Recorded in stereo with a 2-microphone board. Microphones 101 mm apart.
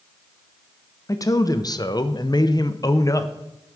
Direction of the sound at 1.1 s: 35° left (ahead or behind).